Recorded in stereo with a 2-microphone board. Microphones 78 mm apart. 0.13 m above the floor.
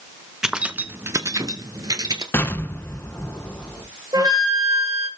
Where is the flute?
55° right (ahead or behind), 3 m.